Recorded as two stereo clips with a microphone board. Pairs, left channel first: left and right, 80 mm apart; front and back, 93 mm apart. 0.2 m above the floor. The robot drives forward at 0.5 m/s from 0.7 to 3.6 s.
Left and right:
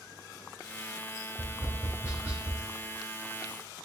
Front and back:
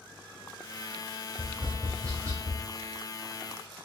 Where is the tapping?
140° right, 1.5 m; by 2.6 s 155° right, 1.9 m.